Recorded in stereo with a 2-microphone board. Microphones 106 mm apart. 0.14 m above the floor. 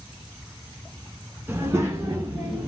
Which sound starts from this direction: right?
A child speaking, at 1.5 s.